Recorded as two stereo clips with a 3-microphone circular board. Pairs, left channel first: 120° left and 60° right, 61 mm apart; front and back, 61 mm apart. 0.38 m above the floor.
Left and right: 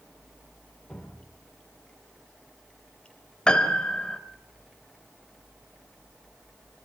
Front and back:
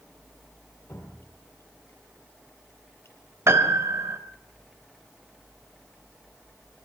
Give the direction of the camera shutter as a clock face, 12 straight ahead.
No camera shutter in this recording.